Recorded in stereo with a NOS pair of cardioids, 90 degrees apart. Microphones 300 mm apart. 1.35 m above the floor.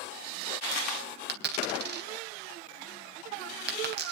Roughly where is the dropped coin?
Ahead right.